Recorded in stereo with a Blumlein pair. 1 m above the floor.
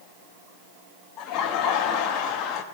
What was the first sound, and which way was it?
Laughter, 35° left.